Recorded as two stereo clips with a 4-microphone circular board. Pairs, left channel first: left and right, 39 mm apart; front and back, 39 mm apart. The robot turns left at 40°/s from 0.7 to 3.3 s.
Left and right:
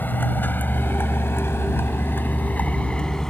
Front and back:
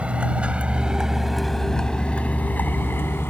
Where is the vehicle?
125° left; by 3.3 s 10° left.